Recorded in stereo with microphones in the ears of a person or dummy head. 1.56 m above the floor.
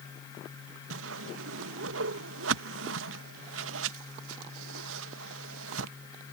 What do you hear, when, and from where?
0.9 s a whoosh: 80° right